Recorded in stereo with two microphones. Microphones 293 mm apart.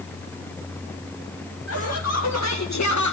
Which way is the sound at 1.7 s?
55° left (ahead or behind).